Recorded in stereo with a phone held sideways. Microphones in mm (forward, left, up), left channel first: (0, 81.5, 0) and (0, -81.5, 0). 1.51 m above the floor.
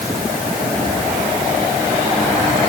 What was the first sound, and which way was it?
Only background noise.